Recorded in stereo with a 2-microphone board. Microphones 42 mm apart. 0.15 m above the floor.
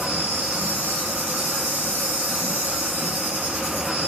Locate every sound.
0.0 s an insect: 60° right (ahead or behind), 1.3 m